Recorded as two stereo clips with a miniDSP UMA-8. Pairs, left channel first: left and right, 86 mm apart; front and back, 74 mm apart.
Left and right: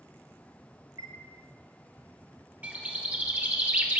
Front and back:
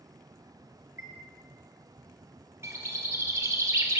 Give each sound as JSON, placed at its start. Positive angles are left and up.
{"t": 1.0, "sound": "a chime", "azimuth_deg": -135, "distance_m": 1.6}
{"t": 2.6, "sound": "a bird", "azimuth_deg": -150, "distance_m": 1.8}